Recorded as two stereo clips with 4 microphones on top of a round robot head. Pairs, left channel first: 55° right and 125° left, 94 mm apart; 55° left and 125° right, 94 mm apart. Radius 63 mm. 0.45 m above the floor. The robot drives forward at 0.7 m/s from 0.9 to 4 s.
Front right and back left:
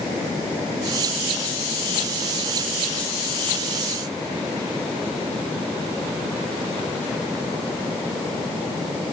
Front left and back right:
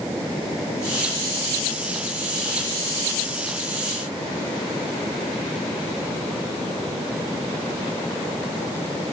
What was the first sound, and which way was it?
Only background noise.